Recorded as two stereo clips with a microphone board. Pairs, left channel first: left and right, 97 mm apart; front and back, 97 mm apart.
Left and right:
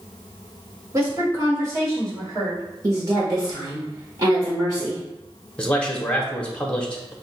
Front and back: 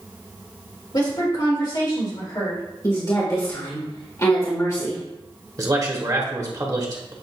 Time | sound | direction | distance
0.9 | a woman speaking | 35° right | 2.5 m
2.8 | a woman speaking | 45° right | 1.5 m
5.6 | a man speaking | 165° left | 1.1 m